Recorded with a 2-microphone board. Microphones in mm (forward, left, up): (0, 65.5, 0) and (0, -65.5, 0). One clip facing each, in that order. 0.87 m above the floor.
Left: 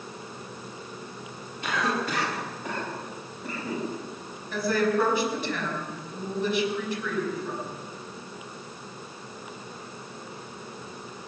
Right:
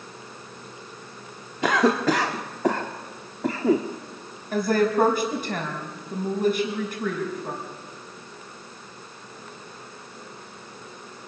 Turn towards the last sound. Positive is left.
turn(degrees=-45)  # may be behind; listen again after turning